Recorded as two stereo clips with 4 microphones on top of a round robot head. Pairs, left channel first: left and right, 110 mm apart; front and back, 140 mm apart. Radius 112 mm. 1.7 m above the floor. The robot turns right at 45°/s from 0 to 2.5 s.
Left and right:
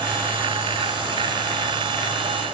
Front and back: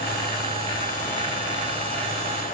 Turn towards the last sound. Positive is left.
No sound to turn to.